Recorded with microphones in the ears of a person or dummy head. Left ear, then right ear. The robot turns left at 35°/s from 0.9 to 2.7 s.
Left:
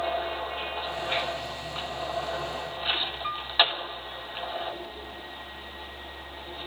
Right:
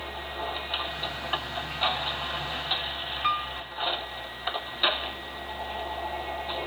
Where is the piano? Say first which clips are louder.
Right 6 dB; 15° right (ahead or behind).